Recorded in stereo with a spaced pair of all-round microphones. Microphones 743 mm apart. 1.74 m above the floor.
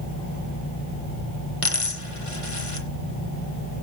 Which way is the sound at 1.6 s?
45° left (ahead or behind).